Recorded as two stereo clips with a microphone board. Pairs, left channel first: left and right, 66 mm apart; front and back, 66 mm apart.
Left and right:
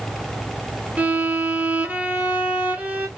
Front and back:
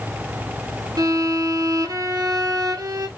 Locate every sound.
1.0 s a violin: 155° right, 0.6 m